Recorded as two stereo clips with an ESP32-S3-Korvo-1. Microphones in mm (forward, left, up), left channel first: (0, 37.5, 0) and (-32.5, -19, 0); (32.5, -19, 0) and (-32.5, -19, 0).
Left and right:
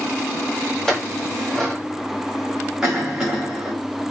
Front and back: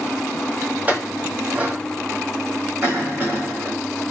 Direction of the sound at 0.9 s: 135° left.